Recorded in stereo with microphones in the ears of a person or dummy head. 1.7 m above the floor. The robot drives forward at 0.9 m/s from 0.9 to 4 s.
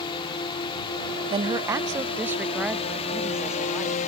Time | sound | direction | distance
0.0 | a drone | 25° left (ahead or behind) | ?
1.3 | a woman speaking | 25° right (ahead or behind) | ?